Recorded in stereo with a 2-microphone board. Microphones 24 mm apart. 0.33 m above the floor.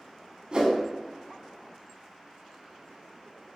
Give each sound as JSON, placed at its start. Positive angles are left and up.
{"t": 0.5, "sound": "a whoosh", "side_deg": -40, "distance_m": 1.0}